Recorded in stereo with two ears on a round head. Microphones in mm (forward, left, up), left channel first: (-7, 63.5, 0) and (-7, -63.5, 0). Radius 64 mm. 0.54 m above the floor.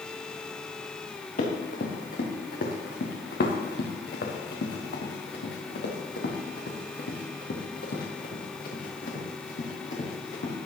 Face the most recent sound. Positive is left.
turn(degrees=50)  # may be behind; listen again after turning